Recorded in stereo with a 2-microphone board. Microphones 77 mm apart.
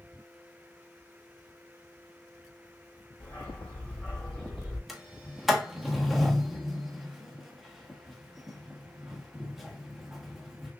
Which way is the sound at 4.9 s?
5° right (ahead or behind).